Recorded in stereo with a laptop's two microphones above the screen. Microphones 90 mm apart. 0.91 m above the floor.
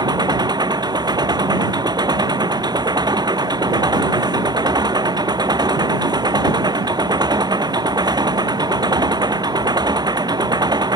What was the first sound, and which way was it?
An engine running, 50° right (ahead or behind).